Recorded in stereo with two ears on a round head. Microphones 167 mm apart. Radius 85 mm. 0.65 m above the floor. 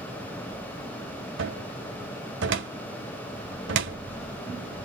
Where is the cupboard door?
75° right (ahead or behind), 1.7 m.